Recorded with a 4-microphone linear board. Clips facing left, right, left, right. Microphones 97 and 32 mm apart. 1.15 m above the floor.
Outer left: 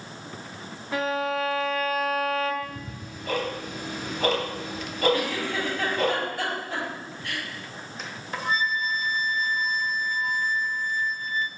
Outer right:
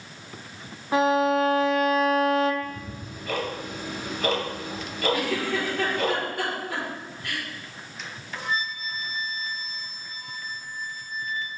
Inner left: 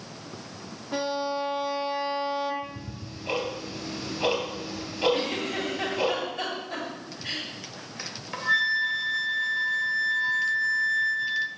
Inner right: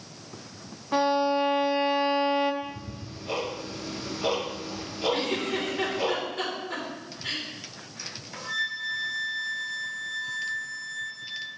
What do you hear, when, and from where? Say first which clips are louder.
0.9 s a violin: outer right 6 dB, inner right 5 dB; 25° right (ahead or behind), 0.7 m
2.6 s ticking: outer right 1 dB, inner right 1 dB; 40° left (ahead or behind), 3 m
5.1 s a giggle: outer right 1 dB, even; 60° right (ahead or behind), 4 m
8.0 s a flute: outer left 3 dB, inner left 6 dB; 40° left (ahead or behind), 1.1 m